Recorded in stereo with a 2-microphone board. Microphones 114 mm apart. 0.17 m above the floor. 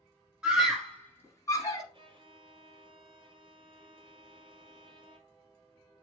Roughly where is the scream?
Centre.